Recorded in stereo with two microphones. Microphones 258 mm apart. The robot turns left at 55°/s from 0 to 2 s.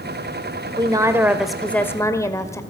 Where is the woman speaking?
15° right (ahead or behind), 1.5 m; by 2.6 s 10° left (ahead or behind), 1.5 m.